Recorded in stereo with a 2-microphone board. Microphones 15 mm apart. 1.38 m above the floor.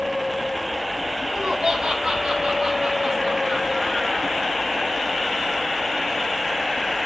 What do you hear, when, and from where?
1.2 s laughter: 80° right, 1.9 m; by 4.5 s 5° right (ahead or behind), 1.7 m